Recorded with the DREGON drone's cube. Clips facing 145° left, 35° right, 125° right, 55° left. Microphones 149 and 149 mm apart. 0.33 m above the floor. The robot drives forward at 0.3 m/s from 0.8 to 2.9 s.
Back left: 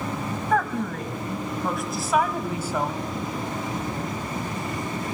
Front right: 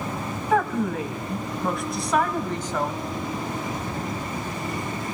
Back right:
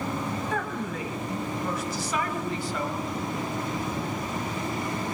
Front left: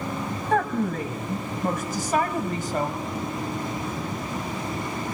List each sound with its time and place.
0.5 s a woman speaking: 45° left, 2.0 m; by 2.9 s 70° left, 1.7 m